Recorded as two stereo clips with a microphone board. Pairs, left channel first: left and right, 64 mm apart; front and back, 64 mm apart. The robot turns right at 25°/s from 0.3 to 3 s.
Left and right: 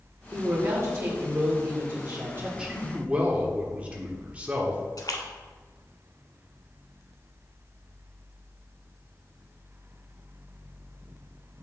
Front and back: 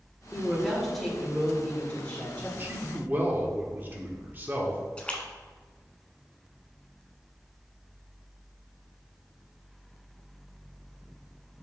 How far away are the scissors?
No scissors in this recording.